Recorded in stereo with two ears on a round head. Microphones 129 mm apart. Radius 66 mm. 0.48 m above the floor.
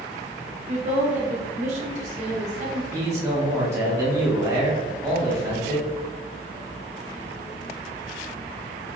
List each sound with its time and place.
0.7 s a woman speaking: 50° right (ahead or behind), 1.0 m
2.9 s a man speaking: 20° right (ahead or behind), 1.3 m